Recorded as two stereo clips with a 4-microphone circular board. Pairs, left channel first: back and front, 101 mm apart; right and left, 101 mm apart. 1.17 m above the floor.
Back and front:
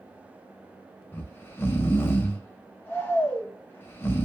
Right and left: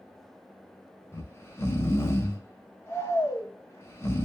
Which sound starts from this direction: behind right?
Snoring, at 1.1 s.